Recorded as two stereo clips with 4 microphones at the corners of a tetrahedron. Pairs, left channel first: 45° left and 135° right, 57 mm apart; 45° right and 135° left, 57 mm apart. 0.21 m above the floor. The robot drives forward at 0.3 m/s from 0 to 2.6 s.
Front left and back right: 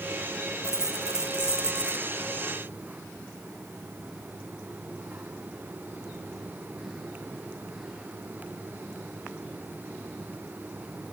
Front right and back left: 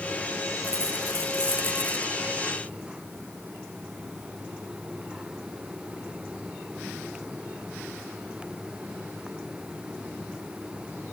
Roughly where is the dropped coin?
Ahead right.